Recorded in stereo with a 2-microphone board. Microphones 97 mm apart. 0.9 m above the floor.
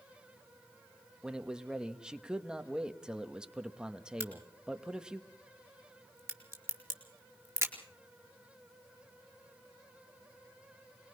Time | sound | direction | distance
1.2 | a man speaking | 10° right (ahead or behind) | 1.3 m
4.2 | a crack | 25° right (ahead or behind) | 4.5 m